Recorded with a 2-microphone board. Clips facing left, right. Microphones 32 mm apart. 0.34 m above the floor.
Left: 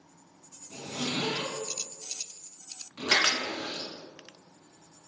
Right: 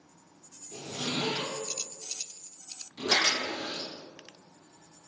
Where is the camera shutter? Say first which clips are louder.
Left 1 dB; 50° left (ahead or behind), 0.9 m.